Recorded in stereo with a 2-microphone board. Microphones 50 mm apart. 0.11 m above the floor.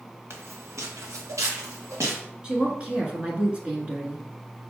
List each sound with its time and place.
0.3 s footsteps: 55° right (ahead or behind), 1.1 m; by 2.2 s 75° right (ahead or behind), 2.5 m
2.4 s a woman speaking: 25° right (ahead or behind), 1.2 m